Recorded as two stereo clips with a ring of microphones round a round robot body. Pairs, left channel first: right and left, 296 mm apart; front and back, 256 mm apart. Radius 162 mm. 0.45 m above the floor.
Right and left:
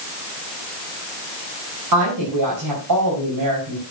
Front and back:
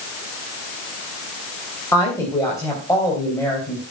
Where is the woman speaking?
80° left, 3.5 m.